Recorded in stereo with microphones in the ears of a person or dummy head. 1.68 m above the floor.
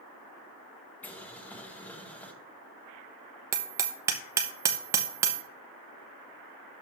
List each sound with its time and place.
1.0 s boiling: 5° left (ahead or behind), 1.0 m
3.5 s hammering: 20° right (ahead or behind), 0.8 m